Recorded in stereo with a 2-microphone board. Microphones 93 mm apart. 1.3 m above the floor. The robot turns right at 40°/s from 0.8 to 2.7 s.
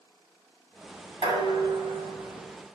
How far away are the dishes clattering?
About 4.5 m.